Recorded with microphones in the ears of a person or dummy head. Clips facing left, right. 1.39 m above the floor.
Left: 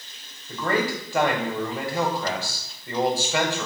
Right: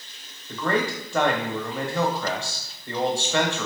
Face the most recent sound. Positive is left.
turn(degrees=5)  # may be behind; listen again after turning